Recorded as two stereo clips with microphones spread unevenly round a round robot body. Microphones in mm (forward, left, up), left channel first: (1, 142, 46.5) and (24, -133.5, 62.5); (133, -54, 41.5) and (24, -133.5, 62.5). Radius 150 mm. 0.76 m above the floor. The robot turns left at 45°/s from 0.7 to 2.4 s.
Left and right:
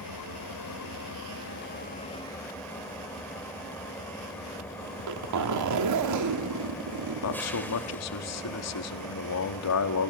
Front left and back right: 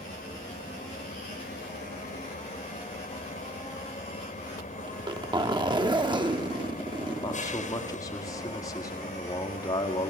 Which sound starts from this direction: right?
A zipper, at 4.9 s.